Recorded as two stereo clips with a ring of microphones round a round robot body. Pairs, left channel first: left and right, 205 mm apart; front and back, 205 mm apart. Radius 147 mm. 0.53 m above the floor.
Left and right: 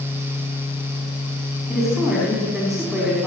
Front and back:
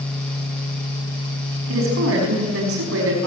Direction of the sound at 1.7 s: Straight behind.